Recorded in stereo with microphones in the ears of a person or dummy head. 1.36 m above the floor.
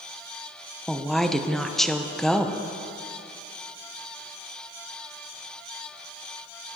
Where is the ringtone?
I don't hear a ringtone.